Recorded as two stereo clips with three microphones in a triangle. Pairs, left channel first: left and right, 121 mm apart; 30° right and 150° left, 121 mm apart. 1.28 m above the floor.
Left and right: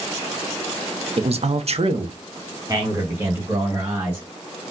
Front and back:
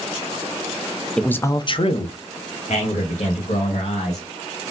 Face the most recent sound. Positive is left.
turn(degrees=-15)